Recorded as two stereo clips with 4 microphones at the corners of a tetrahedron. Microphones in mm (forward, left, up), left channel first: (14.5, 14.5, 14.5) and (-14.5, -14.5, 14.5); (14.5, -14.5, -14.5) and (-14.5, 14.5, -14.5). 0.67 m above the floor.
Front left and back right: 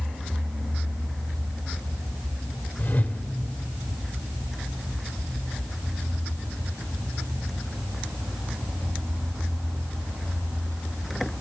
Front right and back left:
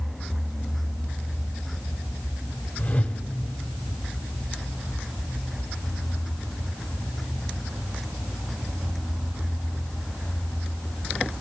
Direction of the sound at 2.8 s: 5° right.